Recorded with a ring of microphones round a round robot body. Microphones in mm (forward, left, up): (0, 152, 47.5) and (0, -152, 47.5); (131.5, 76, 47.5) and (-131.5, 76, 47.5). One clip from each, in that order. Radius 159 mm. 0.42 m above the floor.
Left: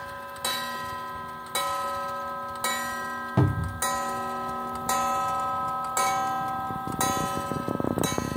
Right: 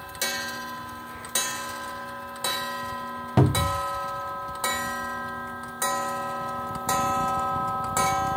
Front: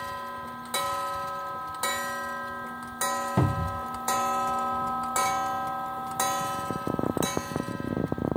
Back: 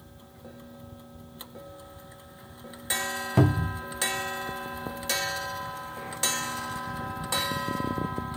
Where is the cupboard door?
115° right, 0.6 m.